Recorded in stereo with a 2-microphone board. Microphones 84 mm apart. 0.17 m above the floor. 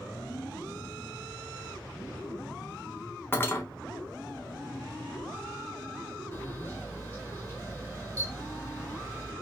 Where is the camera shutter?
25° right (ahead or behind), 1.7 m.